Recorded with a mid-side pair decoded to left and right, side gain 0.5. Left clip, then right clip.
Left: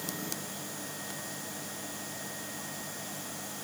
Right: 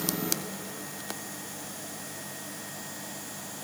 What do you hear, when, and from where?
Only background noise.